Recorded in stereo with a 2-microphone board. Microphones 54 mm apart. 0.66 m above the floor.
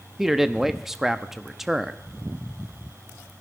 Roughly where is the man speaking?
Centre.